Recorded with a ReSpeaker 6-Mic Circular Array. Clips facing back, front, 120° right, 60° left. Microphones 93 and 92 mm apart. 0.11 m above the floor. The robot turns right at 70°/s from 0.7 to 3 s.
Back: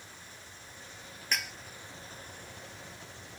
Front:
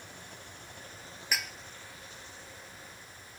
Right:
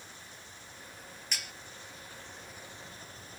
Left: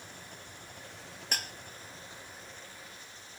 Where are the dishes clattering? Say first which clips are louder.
Even, left 5 dB; 85° left; by 1.5 s 100° left.